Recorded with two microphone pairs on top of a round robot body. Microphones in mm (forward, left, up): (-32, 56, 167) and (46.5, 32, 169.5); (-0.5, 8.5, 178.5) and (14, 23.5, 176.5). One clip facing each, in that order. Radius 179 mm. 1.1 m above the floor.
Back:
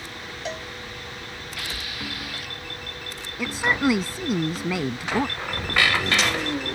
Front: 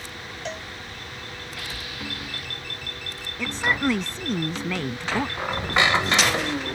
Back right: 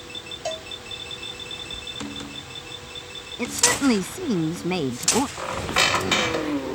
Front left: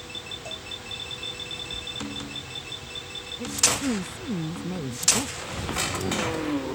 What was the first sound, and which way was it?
A cowbell, 110° right.